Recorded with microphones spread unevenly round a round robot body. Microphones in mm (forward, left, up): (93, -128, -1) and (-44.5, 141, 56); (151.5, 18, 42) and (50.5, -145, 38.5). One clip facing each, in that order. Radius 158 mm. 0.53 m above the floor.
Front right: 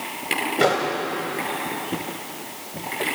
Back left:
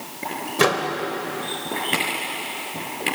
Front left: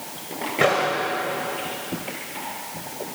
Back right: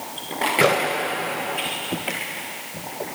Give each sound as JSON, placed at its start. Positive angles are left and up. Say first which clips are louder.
{"t": 0.6, "sound": "a microwave", "louder": "even, back right 1 dB", "azimuth_deg": -175, "distance_m": 1.9}